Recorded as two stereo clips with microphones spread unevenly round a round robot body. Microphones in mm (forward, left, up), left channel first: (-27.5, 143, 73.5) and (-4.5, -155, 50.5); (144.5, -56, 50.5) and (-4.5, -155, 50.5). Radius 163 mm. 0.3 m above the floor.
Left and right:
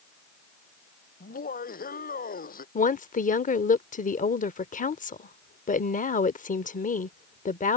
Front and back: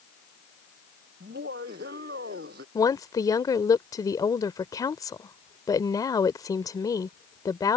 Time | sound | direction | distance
1.2 | laughter | 155° left | ?
2.8 | a woman speaking | 70° left | ?